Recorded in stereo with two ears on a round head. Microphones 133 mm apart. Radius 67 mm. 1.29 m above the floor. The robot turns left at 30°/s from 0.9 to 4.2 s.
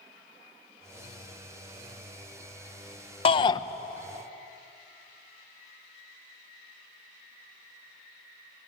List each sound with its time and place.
3.2 s a shout: 35° left (ahead or behind), 0.8 m; by 3.6 s 25° left (ahead or behind), 0.8 m